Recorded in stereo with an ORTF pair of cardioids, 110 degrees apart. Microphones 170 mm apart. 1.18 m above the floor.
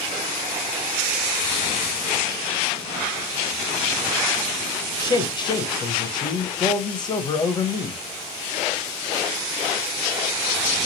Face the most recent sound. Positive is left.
turn(degrees=25)